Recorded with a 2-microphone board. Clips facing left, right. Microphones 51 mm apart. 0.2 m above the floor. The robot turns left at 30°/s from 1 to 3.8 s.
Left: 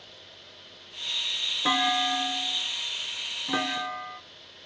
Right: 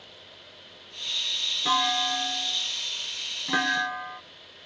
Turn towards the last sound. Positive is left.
turn(degrees=-30)